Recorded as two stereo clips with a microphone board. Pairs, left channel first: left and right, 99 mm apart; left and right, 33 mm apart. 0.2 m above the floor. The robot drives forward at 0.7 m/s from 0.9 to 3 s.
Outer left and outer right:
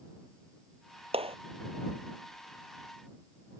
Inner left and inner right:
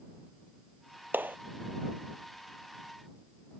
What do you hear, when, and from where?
1.1 s a clap: 75° right (ahead or behind)